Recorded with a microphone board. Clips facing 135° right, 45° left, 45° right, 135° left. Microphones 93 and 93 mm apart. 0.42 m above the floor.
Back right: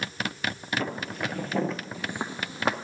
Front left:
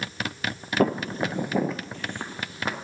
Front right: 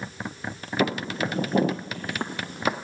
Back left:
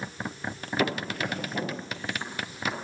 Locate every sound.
0.8 s footsteps: 30° left, 0.6 m; by 2.7 s 75° right, 1.0 m